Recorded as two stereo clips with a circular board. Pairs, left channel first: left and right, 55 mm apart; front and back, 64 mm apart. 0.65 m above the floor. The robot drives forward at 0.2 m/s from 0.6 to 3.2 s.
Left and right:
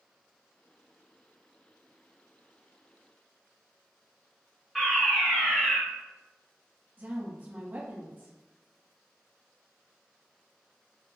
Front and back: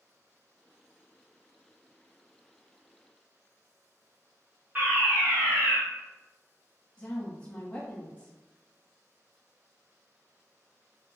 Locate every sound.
4.8 s a fire alarm: straight behind, 1.6 m
7.0 s a woman speaking: 60° right, 1.5 m